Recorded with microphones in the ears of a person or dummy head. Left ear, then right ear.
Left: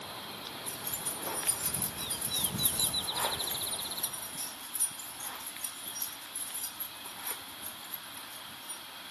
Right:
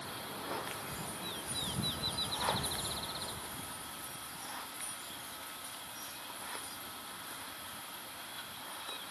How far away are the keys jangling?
About 1.7 m.